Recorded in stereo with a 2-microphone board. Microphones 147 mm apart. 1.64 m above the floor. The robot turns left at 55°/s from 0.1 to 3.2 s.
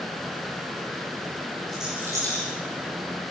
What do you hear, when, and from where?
1.7 s a rattle: 5° left (ahead or behind), 7.5 m; by 2.5 s 45° right (ahead or behind), 7.5 m